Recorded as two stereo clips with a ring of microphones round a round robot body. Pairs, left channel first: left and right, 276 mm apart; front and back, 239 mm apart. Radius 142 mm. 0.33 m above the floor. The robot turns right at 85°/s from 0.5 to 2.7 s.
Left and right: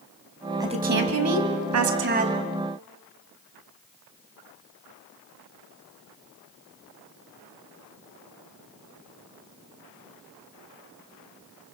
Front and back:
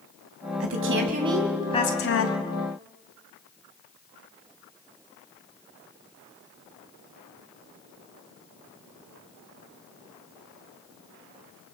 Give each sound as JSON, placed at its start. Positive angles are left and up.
{"t": 0.6, "sound": "a woman speaking", "azimuth_deg": -165, "distance_m": 2.5}